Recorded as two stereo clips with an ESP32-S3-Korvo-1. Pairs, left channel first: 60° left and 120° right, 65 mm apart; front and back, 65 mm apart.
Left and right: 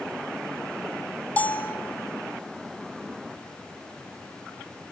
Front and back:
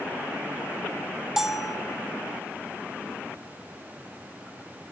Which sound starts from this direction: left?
A bell, at 1.4 s.